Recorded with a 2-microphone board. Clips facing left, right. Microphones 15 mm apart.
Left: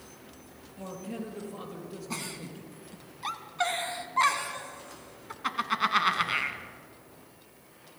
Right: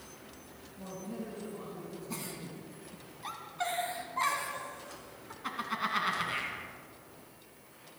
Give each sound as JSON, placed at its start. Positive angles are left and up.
{"t": 0.8, "sound": "a man speaking", "side_deg": 60, "distance_m": 5.5}
{"t": 2.1, "sound": "a giggle", "side_deg": 35, "distance_m": 1.5}